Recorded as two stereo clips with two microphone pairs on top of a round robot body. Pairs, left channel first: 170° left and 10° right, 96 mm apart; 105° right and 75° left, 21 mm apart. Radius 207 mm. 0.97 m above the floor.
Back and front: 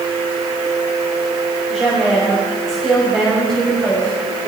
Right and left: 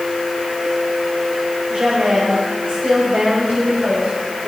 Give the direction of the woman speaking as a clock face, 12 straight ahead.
9 o'clock.